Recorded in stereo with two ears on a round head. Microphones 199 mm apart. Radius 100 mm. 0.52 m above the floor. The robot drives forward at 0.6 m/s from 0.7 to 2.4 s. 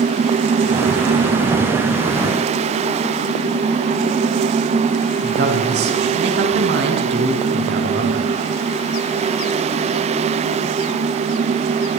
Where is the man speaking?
50° right (ahead or behind), 5.5 m.